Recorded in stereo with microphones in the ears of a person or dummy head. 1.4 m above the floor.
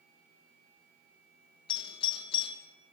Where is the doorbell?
30° left (ahead or behind), 3 m.